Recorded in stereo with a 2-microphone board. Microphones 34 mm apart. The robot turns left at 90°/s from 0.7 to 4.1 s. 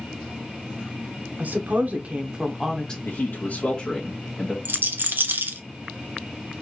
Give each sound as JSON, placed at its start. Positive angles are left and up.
{"t": 1.4, "sound": "a woman speaking", "azimuth_deg": -75, "distance_m": 0.9}
{"t": 3.0, "sound": "a man speaking", "azimuth_deg": 90, "distance_m": 1.2}
{"t": 4.7, "sound": "a rattle", "side_deg": -80, "distance_m": 0.6}